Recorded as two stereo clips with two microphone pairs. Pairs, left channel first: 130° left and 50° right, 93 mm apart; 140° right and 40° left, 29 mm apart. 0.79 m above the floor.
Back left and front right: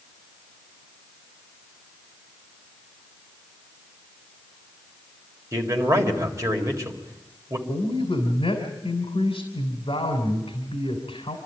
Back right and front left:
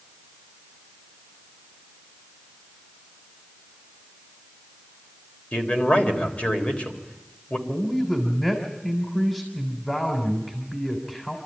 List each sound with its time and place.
5.5 s a man speaking: 105° right, 3.5 m
7.7 s a man speaking: 145° left, 3 m